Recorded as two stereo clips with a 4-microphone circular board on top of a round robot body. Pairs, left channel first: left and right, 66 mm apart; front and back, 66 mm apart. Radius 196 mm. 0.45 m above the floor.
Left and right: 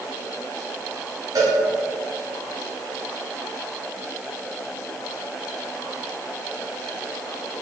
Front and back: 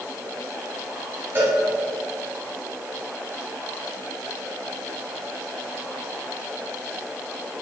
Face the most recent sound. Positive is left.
turn(degrees=-125)